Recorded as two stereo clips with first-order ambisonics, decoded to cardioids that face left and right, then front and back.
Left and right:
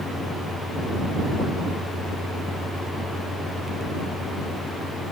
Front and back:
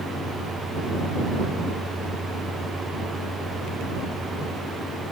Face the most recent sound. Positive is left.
No sound to turn to.